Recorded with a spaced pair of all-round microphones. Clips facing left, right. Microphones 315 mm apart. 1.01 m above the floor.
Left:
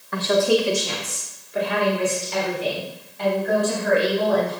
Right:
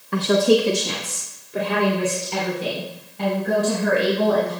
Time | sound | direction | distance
0.1 | a woman speaking | 40° right (ahead or behind) | 0.9 m